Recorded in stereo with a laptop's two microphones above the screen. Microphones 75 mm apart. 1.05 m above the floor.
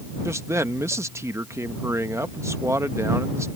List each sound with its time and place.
0.2 s a man speaking: 40° right (ahead or behind)